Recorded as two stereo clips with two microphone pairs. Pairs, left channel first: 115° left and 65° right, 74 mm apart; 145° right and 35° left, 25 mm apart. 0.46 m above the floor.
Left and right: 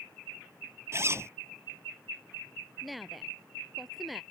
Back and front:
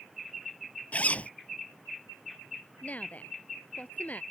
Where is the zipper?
120° right.